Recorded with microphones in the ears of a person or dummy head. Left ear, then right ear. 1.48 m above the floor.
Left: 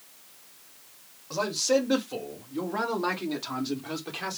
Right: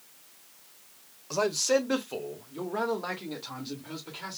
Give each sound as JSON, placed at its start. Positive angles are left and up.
{"t": 1.3, "sound": "a man speaking", "side_deg": -60, "distance_m": 1.0}